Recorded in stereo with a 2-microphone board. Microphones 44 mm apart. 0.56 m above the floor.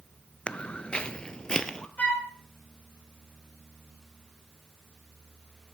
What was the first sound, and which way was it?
Footsteps, 20° left (ahead or behind).